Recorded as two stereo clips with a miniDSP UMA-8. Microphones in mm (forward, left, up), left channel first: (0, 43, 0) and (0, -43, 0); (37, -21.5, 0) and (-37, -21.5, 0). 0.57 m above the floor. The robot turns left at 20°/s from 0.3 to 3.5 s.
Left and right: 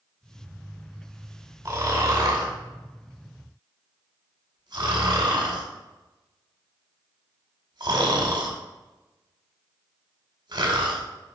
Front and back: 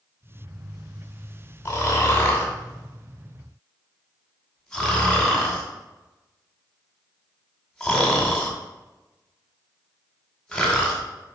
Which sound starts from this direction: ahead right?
Snoring, at 1.6 s.